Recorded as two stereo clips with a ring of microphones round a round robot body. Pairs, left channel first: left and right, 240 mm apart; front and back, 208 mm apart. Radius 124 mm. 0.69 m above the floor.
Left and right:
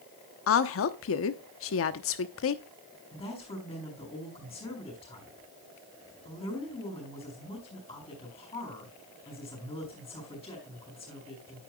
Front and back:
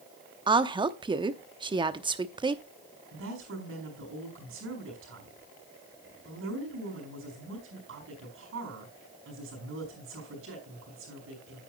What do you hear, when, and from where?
0.5 s a woman speaking: 115° left, 0.9 m
3.1 s a woman speaking: 160° left, 5 m